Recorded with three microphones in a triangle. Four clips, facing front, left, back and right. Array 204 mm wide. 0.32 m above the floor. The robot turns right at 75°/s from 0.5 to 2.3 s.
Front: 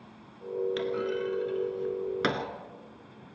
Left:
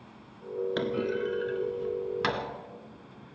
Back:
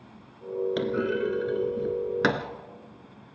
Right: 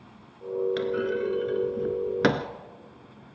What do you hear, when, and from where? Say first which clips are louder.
0.8 s a clunk: right 3 dB, back 4 dB; 150° left, 1.3 m; by 2.5 s 95° right, 1.3 m